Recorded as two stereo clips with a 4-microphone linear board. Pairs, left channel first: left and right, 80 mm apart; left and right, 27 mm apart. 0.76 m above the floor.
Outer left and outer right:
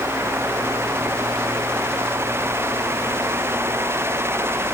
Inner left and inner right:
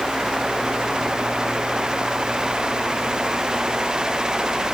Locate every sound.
Only background noise.